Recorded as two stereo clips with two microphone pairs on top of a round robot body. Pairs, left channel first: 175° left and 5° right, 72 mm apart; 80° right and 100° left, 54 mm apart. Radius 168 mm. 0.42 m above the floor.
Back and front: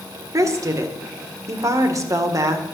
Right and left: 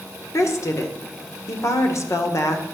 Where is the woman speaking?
45° right, 1.8 m.